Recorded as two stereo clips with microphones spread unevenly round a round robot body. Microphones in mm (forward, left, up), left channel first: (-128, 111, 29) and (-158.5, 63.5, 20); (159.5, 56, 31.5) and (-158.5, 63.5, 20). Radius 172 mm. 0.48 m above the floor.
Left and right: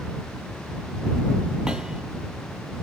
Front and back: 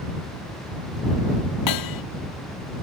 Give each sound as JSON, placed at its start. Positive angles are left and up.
{"t": 1.7, "sound": "hammering", "azimuth_deg": -35}